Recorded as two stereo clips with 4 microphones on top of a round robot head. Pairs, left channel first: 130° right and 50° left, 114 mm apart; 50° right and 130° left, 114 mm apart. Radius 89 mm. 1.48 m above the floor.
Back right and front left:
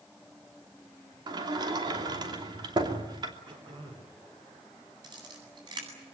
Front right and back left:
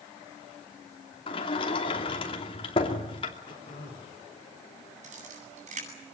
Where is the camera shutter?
105° left, 9.5 m.